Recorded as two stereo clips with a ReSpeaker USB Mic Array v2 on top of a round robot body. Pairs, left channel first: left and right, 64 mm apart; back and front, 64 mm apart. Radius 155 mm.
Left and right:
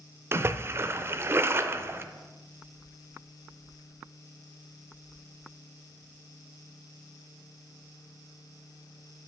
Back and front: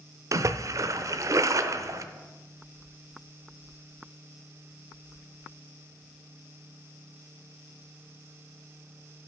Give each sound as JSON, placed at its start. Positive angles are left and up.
{"t": 0.3, "sound": "a splash", "azimuth_deg": -40, "distance_m": 0.7}